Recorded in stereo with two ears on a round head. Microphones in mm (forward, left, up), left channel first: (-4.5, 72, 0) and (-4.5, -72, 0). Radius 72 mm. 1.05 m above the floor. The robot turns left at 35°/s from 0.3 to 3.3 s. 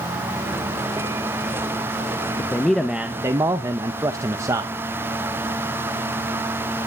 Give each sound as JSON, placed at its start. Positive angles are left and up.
{"t": 2.4, "sound": "a man speaking", "azimuth_deg": 15, "distance_m": 0.6}